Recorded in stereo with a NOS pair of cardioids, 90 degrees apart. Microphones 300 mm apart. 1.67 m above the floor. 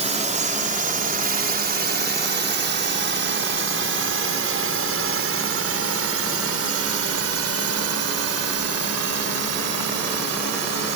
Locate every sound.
0.0 s a drone: 20° right; by 11.0 s 60° right